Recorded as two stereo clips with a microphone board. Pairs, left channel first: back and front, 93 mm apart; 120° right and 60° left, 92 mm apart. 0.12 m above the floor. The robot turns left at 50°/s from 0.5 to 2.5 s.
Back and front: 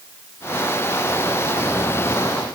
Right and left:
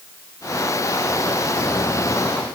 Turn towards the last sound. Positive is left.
No sound to turn to.